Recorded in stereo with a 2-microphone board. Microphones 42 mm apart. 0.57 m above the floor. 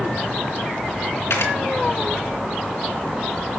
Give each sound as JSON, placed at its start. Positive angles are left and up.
{"t": 1.3, "sound": "a camera shutter", "side_deg": 90, "distance_m": 3.0}